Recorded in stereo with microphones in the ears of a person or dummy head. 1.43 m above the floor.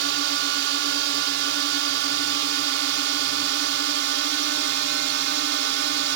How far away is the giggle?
I don't hear a giggle.